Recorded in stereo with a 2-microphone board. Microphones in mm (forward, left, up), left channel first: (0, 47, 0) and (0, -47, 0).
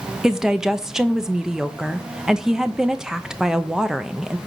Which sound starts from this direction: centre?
A woman speaking, at 0.2 s.